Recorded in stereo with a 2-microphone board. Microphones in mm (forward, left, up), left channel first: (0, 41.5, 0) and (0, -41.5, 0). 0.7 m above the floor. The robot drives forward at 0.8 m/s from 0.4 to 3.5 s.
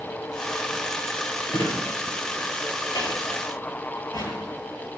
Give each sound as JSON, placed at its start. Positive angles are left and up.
{"t": 1.5, "sound": "a drawer", "side_deg": 65, "distance_m": 4.5}